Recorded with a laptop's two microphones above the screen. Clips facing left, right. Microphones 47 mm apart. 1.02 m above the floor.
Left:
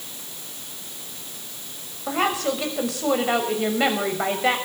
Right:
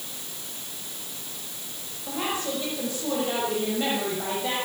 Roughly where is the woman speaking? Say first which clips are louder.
Left 6 dB; left.